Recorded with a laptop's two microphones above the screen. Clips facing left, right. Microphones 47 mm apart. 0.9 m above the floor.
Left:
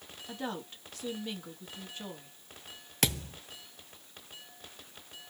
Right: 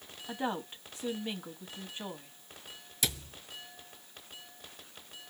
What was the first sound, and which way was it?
A woman speaking, 20° right (ahead or behind).